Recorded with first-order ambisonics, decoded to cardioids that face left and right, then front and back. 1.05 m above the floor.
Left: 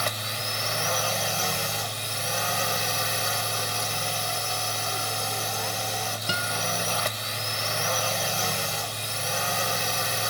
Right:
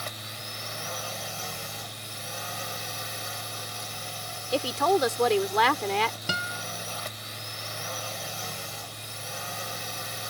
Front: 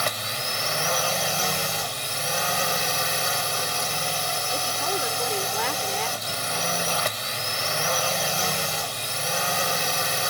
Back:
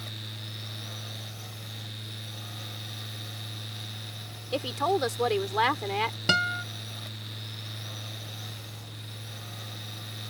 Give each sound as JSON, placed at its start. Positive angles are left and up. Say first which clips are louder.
{"t": 0.0, "sound": "a drone", "louder": "left 8 dB, front 14 dB", "azimuth_deg": 25}
{"t": 4.5, "sound": "a woman speaking", "louder": "right 4 dB, front 2 dB", "azimuth_deg": -110}
{"t": 6.3, "sound": "a guitar", "louder": "left 3 dB, back 2 dB", "azimuth_deg": 180}